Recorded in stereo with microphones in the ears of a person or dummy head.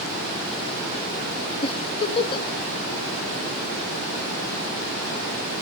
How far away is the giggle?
About 1.5 m.